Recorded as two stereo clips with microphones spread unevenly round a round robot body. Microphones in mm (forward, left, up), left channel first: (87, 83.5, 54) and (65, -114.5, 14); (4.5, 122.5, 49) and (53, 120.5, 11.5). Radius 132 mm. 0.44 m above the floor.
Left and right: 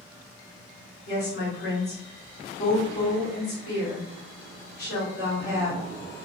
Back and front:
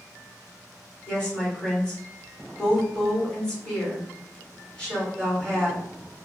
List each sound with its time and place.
1.1 s a woman speaking: 65° left, 1.7 m